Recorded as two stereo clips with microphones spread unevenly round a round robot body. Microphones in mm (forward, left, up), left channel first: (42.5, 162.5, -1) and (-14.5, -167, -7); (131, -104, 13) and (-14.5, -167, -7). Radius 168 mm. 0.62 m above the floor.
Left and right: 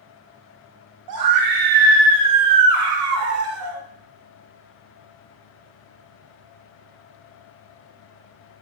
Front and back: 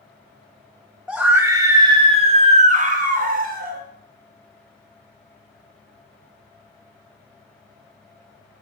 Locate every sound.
1.1 s a scream: 75° right, 1.5 m; by 3.8 s 155° right, 2 m